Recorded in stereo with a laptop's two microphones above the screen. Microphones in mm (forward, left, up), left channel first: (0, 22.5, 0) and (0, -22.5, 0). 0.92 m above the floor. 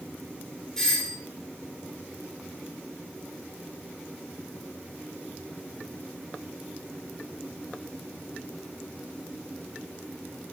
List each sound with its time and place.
0.8 s a doorbell: 10° left (ahead or behind), 2 m